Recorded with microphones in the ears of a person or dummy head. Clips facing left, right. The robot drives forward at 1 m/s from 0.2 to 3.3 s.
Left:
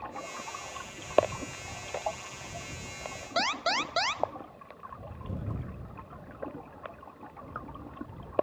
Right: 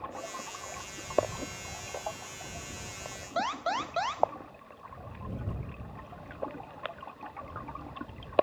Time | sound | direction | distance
3.4 | an alarm | 40° left (ahead or behind) | 0.7 m